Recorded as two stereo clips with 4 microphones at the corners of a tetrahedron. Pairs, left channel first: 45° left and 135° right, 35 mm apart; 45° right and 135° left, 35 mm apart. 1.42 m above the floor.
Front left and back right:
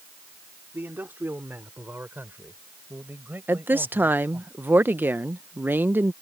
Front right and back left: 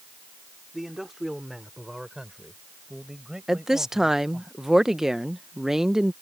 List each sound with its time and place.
0.7 s a man speaking: 145° right; by 4.5 s 155° right
3.5 s a woman speaking: 150° right